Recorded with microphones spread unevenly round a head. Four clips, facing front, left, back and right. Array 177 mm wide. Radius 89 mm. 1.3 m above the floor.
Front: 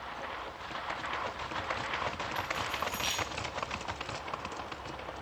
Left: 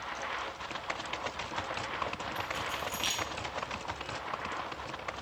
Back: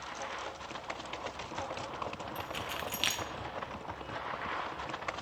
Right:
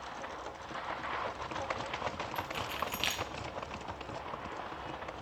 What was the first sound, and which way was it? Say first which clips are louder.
Keys jangling: left 1 dB, front 4 dB; 165° right.